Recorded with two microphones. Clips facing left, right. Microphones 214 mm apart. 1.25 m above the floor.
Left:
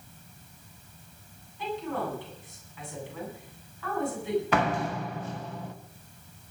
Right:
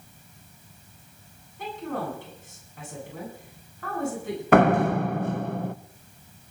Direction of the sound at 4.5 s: 55° right (ahead or behind).